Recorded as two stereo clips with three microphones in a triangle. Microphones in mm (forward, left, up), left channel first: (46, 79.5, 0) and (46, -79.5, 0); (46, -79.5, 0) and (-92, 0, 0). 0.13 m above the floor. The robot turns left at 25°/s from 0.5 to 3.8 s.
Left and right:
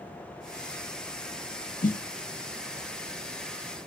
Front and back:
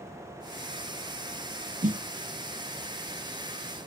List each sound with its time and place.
1.8 s a snare drum: 120° left, 0.6 m; by 2.0 s 115° left, 0.6 m